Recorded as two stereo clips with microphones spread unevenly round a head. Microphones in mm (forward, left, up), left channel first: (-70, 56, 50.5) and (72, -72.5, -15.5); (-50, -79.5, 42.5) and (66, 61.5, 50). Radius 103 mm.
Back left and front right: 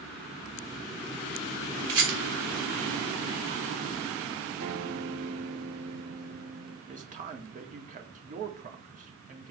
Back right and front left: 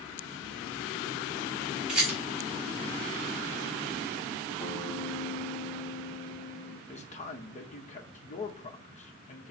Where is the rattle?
35° right, 4 m.